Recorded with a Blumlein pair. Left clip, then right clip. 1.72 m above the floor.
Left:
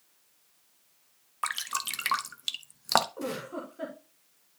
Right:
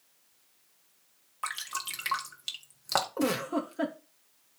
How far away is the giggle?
About 2.0 m.